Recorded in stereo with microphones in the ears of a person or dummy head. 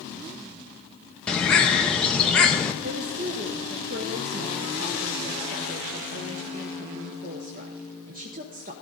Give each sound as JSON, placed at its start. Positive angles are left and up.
{"t": 1.3, "sound": "a bird", "side_deg": 5, "distance_m": 0.9}
{"t": 2.8, "sound": "a woman speaking", "side_deg": -40, "distance_m": 0.9}